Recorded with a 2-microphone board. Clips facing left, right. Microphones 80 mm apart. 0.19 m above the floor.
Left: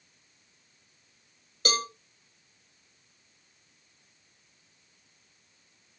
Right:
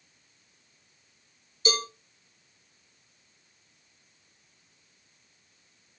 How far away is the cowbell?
About 1.3 m.